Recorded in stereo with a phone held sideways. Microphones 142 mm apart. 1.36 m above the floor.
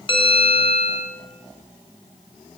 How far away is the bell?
About 6 m.